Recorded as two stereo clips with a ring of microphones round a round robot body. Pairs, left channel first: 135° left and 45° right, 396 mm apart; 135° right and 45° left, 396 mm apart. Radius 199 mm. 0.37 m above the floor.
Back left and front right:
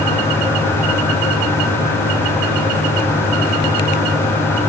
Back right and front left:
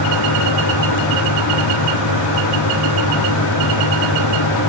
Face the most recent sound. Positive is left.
No sound to turn to.